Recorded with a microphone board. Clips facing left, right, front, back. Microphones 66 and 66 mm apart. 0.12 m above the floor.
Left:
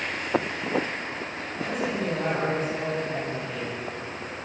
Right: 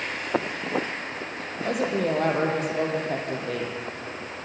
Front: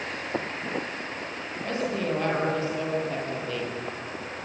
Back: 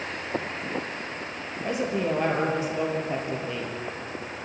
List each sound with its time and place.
1.6 s a woman speaking: 105° right, 4.5 m